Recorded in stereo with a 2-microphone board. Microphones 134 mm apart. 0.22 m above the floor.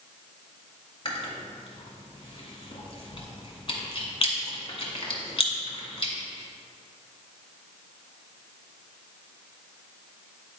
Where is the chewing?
45° left (ahead or behind), 1.5 m.